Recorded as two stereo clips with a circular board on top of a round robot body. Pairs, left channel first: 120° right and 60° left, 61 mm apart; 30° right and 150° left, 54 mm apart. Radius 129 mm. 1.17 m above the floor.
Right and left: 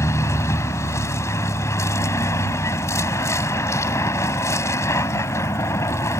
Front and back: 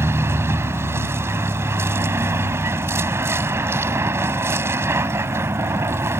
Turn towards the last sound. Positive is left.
turn(degrees=-165)